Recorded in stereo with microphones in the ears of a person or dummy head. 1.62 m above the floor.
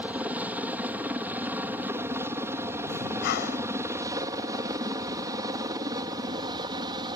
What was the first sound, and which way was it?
A helicopter, 5° right (ahead or behind).